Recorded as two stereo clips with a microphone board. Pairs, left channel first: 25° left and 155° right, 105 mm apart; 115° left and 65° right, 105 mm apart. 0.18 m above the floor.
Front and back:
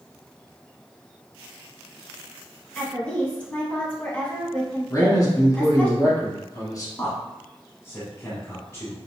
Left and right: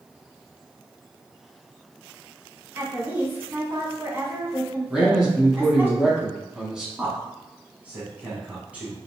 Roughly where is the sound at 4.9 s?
Ahead.